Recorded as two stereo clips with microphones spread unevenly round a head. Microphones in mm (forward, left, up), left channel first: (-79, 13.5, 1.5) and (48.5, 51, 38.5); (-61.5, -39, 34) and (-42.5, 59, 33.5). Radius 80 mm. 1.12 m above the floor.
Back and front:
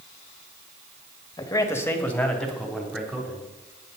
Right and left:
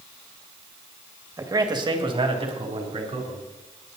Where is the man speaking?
135° left, 1.9 m; by 4.0 s 95° left, 4.5 m.